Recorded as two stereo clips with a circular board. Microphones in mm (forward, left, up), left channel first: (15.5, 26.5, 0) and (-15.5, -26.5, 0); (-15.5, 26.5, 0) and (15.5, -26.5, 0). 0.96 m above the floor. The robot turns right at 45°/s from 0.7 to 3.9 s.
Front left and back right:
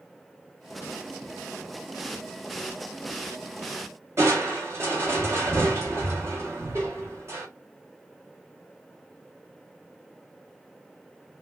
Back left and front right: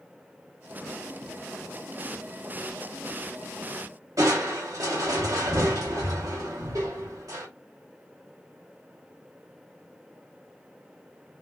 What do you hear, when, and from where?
4.2 s crushing: 80° right, 1.3 m